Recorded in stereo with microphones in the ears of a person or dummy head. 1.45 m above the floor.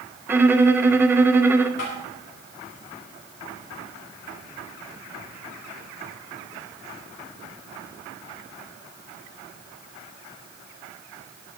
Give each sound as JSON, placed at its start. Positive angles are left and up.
{"t": 0.3, "sound": "a violin", "side_deg": -15, "distance_m": 1.0}
{"t": 1.8, "sound": "tapping", "side_deg": 60, "distance_m": 6.0}